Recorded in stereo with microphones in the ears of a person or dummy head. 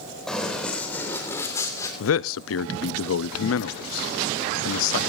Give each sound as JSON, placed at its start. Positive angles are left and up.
{"t": 0.3, "sound": "running footsteps", "side_deg": 5, "distance_m": 4.0}
{"t": 2.0, "sound": "a man speaking", "side_deg": 75, "distance_m": 0.7}